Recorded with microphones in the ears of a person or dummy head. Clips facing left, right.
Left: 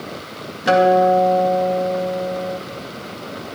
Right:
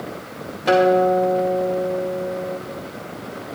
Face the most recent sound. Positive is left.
turn(degrees=15)  # may be behind; listen again after turning